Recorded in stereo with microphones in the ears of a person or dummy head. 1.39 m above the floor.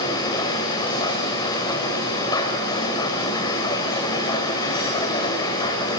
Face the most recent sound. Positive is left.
turn(degrees=30)  # may be behind; listen again after turning